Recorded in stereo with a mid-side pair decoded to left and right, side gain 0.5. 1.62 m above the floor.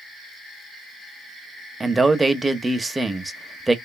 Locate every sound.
1.8 s a man speaking: 20° right, 0.6 m